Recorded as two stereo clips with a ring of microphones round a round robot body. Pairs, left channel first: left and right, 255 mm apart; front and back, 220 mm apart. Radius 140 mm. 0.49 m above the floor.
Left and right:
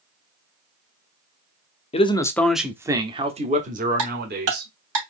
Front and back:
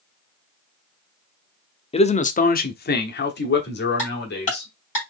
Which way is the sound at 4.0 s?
60° right.